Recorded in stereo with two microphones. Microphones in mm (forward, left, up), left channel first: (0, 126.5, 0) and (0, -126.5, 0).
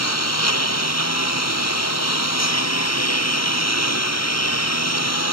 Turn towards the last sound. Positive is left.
turn(degrees=80)